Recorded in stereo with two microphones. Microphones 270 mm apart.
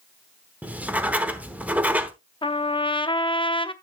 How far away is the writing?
About 0.9 m.